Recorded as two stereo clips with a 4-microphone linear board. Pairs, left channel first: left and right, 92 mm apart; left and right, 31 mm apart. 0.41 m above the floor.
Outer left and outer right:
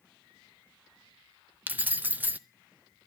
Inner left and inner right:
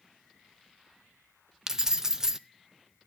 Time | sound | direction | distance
1.7 | keys jangling | 20° right (ahead or behind) | 0.6 m